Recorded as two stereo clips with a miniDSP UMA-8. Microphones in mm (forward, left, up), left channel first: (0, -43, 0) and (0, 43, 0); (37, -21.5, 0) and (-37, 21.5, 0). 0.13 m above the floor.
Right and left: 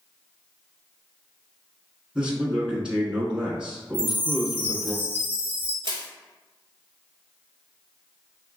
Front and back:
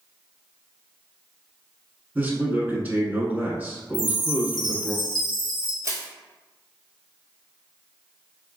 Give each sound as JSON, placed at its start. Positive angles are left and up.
{"t": 2.1, "sound": "a man speaking", "azimuth_deg": 145, "distance_m": 1.0}
{"t": 3.9, "sound": "a chime", "azimuth_deg": 155, "distance_m": 0.9}
{"t": 5.8, "sound": "crushing", "azimuth_deg": 105, "distance_m": 0.9}